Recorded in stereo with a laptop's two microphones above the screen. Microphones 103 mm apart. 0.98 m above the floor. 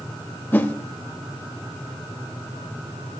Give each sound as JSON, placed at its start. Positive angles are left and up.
{"t": 0.5, "sound": "a whoosh", "side_deg": 20, "distance_m": 1.1}